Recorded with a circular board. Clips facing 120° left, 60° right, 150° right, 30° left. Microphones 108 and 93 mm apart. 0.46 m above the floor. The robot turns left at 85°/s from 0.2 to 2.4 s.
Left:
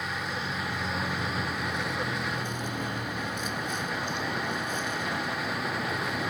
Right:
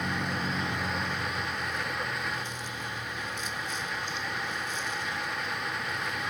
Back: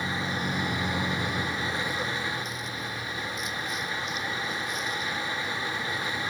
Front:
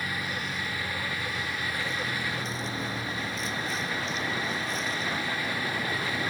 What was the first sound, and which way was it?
A vehicle, 85° right.